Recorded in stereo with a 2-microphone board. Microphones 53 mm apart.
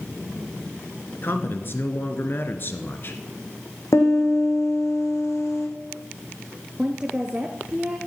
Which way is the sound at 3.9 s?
65° left (ahead or behind).